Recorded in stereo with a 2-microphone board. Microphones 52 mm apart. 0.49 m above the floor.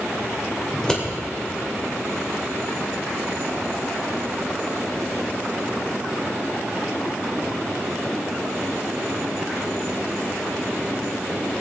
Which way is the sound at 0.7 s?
15° left (ahead or behind).